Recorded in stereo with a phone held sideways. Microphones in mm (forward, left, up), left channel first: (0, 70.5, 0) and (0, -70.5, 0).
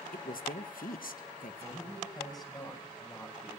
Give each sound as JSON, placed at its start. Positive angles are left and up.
{"t": 0.1, "sound": "a woman speaking", "side_deg": 85, "distance_m": 1.5}
{"t": 1.6, "sound": "a man speaking", "side_deg": 30, "distance_m": 8.0}